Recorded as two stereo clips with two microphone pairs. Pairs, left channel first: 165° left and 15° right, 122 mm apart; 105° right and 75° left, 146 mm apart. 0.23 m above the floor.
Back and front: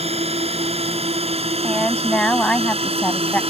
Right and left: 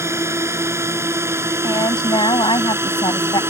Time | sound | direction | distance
0.0 | a drone | 5° left | ?
1.6 | a woman speaking | 125° right | ?